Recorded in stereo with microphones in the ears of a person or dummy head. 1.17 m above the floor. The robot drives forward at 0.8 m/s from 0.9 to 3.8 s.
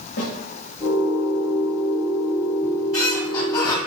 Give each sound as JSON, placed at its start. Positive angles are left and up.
{"t": 0.2, "sound": "a snare drum", "side_deg": 70, "distance_m": 2.5}
{"t": 2.6, "sound": "a squeak", "side_deg": 20, "distance_m": 3.0}